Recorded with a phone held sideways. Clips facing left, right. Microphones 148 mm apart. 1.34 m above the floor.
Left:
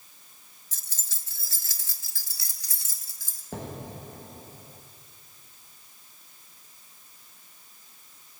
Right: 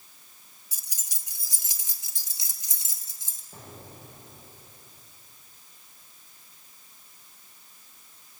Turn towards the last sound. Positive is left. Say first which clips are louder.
# left 9 dB
turn(degrees=75)  # may be behind; listen again after turning